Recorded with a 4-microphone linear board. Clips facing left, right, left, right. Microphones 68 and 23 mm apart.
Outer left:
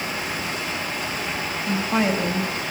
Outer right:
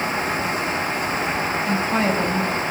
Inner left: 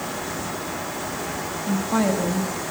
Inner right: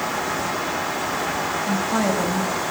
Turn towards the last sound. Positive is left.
turn(degrees=5)  # may be behind; listen again after turning